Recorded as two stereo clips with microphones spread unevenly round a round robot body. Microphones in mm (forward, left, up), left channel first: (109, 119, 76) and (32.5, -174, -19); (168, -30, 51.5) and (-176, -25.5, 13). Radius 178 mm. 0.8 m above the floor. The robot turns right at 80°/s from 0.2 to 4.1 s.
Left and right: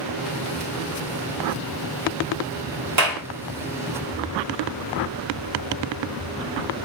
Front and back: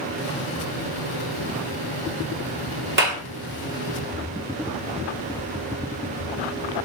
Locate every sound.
3.0 s a clap: 125° right, 1.7 m; by 3.2 s 105° right, 1.7 m